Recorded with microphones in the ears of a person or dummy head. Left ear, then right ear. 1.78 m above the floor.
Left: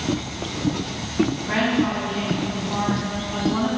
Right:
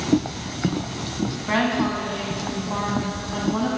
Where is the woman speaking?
40° right (ahead or behind), 2.5 m; by 3.7 s 5° left (ahead or behind), 2.5 m.